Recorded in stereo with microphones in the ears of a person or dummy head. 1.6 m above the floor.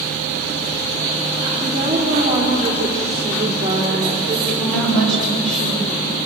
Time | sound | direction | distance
1.6 | a woman speaking | 15° right (ahead or behind) | 4 m
4.5 | a woman speaking | 10° left (ahead or behind) | 7 m